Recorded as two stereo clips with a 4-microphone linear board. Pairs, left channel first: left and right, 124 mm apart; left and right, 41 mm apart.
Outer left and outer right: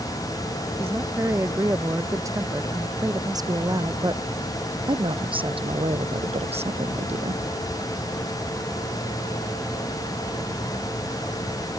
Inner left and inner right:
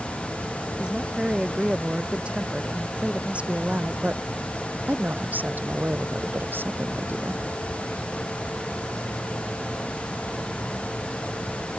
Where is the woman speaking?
20° right (ahead or behind); by 7.4 s 60° right (ahead or behind).